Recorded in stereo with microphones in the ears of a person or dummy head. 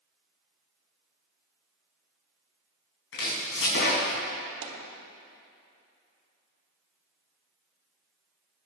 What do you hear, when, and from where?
3.1 s chopping: 75° left (ahead or behind), 5 m
4.6 s a dropped coin: 65° right (ahead or behind), 2.5 m